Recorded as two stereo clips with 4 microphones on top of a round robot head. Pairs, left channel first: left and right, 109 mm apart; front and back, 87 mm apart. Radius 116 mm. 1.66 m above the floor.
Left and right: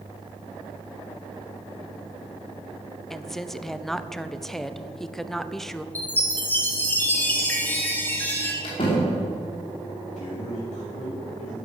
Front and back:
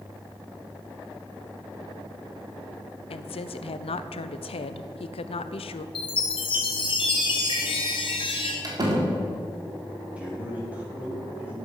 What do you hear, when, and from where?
3.1 s a woman speaking: 5° left, 0.7 m
6.0 s a chime: 20° left, 2.5 m
8.6 s a door slam: 140° left, 2.5 m
10.2 s a man speaking: 110° left, 4.5 m